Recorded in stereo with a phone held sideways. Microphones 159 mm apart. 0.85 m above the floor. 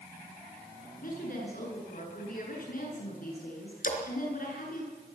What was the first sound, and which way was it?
A woman speaking, 65° left (ahead or behind).